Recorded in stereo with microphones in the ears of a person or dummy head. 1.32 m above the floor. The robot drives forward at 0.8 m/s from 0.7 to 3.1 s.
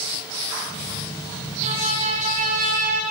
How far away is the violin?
About 3 m.